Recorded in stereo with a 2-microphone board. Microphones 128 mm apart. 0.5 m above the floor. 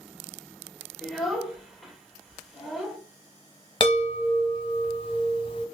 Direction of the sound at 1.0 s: 5° right (ahead or behind).